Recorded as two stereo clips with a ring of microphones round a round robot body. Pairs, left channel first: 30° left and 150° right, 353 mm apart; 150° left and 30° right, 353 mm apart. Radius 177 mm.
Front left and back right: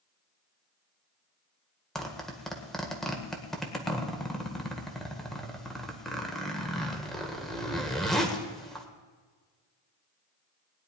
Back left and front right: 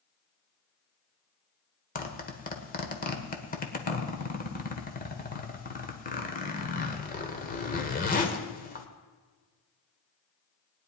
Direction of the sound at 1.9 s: 120° left.